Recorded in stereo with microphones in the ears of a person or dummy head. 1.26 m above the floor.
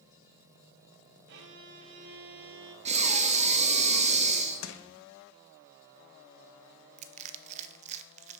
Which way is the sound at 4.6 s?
75° left (ahead or behind).